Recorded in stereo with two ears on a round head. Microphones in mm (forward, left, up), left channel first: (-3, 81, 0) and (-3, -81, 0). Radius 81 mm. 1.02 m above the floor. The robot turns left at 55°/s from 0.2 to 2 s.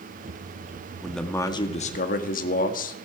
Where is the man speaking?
175° right, 1.7 m; by 3.1 s 130° left, 1.7 m.